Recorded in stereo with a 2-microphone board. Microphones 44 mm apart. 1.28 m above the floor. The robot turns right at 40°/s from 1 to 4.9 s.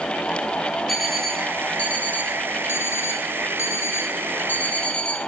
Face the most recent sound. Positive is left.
turn(degrees=150)